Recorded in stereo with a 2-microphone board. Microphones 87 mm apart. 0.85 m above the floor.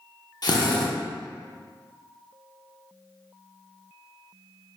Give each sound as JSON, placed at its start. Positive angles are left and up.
{"t": 0.4, "sound": "a drill", "side_deg": 55, "distance_m": 0.6}